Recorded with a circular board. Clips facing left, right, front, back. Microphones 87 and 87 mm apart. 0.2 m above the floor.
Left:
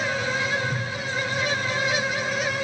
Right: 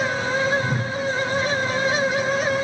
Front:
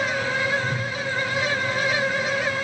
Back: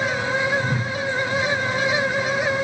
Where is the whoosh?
130° right, 0.6 m.